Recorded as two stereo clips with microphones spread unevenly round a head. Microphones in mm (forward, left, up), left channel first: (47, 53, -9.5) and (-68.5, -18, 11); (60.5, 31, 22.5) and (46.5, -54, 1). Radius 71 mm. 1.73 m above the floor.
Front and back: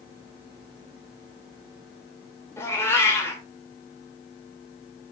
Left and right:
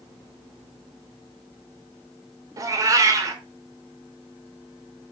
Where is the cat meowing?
45° right, 2.5 m.